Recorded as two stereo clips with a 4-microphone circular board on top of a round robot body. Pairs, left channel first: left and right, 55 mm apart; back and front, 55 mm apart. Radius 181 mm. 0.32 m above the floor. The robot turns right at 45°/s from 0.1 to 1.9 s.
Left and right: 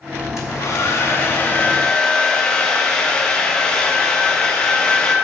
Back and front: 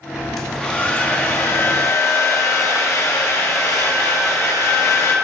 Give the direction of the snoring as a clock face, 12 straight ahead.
I don't hear snoring.